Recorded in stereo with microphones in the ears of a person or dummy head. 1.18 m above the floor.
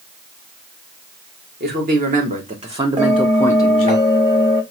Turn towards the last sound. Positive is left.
turn(degrees=-30)  # may be behind; listen again after turning